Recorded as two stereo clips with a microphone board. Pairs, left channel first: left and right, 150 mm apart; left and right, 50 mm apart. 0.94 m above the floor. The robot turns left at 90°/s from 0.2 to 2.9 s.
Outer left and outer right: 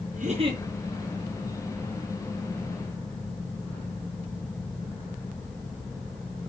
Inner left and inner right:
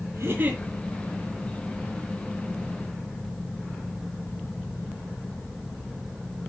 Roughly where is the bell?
I don't hear a bell.